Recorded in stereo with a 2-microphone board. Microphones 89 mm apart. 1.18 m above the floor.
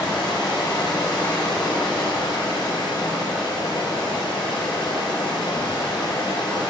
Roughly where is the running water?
Left.